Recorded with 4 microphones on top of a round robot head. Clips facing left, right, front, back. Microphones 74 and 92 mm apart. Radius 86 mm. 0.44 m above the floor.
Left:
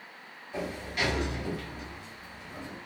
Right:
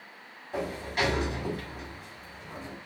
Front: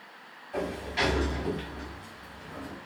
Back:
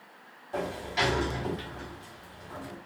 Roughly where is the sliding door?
Behind right.